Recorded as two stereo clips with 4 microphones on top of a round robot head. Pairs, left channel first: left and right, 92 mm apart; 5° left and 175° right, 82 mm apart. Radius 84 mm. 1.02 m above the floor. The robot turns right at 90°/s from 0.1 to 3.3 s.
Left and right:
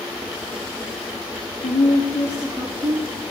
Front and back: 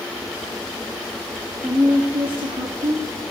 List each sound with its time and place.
1.6 s a woman speaking: 105° left, 1.6 m; by 3.1 s 125° right, 1.6 m